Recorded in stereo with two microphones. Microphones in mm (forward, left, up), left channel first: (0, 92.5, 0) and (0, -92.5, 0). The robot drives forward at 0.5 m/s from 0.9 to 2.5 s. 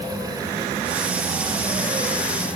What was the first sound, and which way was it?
Only background noise.